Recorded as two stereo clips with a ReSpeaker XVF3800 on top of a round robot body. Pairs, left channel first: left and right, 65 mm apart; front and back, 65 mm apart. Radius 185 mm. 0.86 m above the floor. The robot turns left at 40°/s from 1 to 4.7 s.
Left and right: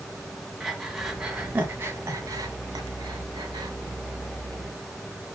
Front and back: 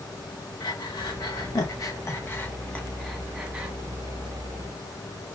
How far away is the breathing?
About 1.8 m.